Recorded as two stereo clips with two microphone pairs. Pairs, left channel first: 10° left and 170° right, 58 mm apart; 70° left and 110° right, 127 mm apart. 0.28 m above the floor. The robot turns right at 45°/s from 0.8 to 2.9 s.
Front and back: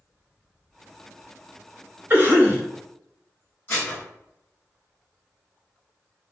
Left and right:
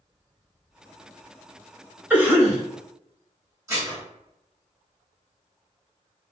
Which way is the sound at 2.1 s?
175° right.